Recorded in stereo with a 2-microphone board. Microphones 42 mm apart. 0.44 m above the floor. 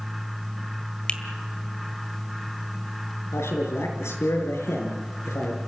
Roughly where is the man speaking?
Left.